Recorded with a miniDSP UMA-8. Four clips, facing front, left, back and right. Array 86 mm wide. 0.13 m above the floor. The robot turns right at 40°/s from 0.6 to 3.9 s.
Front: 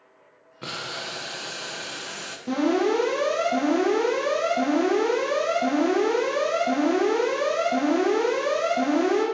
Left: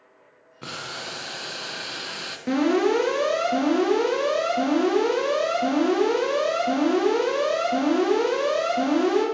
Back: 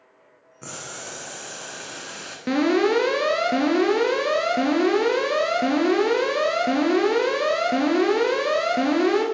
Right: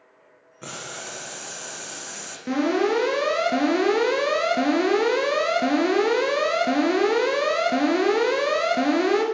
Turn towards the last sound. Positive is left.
turn(degrees=-125)